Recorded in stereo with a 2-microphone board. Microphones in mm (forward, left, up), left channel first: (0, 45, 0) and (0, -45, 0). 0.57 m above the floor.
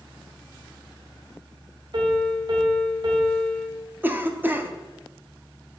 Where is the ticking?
No ticking in this recording.